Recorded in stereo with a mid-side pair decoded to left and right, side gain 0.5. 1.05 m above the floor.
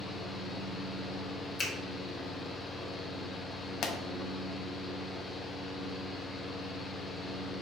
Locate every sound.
0.0 s a fan: 35° left, 0.8 m
1.6 s a finger snap: 35° left, 1.7 m
3.8 s a pop: 60° left, 0.6 m